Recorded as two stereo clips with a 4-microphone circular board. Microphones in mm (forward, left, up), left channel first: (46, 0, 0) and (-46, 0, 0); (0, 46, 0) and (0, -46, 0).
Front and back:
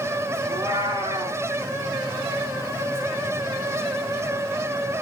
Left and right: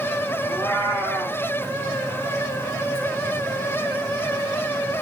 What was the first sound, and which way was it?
A cat meowing, 155° left.